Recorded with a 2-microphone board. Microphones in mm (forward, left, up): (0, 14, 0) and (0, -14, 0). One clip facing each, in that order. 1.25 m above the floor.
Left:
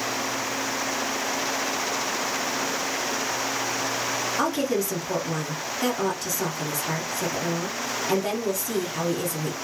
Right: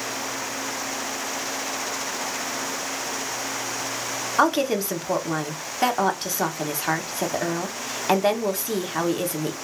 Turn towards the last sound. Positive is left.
turn(degrees=-45)  # may be behind; listen again after turning